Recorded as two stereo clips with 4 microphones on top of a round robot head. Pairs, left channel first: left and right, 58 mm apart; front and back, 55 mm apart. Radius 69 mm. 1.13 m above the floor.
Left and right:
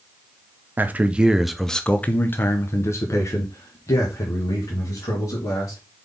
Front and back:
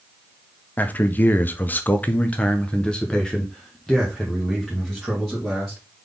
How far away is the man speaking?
About 0.8 m.